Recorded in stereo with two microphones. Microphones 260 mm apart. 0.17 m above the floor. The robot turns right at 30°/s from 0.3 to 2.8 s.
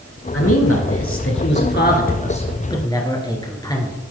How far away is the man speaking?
About 2 m.